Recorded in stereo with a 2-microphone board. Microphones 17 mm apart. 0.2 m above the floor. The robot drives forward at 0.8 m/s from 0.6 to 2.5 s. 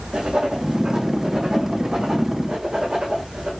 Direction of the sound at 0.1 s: 50° right (ahead or behind).